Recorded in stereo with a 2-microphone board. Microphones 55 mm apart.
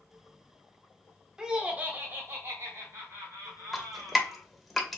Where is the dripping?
Centre (ahead or behind), 0.6 m.